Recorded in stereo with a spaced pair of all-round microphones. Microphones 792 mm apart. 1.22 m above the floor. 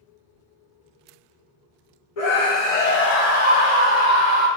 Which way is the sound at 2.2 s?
45° left (ahead or behind).